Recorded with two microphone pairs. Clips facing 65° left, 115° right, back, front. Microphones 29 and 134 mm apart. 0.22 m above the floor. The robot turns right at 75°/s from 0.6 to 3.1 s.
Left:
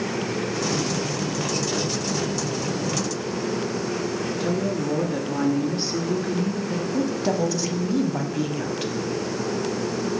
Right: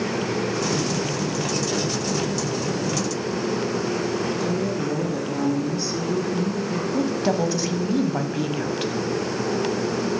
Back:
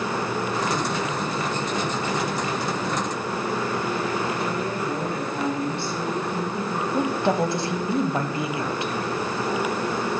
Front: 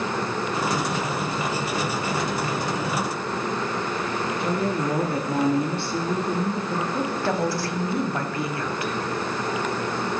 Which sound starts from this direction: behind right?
A woman speaking, at 6.9 s.